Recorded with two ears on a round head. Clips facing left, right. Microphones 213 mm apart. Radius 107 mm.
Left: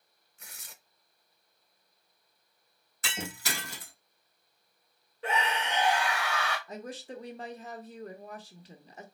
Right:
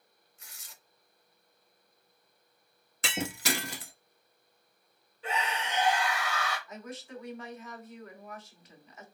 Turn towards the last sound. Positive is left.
turn(degrees=30)  # may be behind; listen again after turning